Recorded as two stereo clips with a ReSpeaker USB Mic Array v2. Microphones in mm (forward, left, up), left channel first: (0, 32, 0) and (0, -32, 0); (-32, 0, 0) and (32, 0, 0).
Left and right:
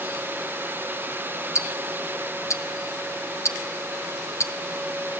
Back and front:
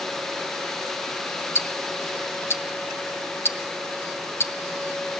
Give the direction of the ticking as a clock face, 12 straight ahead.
8 o'clock.